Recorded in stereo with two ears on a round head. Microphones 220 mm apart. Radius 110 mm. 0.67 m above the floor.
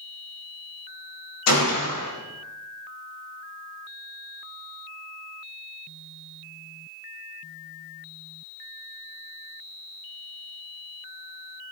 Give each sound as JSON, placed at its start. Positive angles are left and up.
{"t": 1.5, "sound": "a gunshot", "side_deg": 70, "distance_m": 4.0}